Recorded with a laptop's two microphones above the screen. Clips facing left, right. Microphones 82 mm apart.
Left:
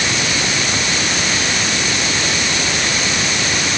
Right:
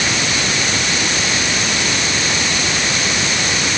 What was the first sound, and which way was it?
Only background noise.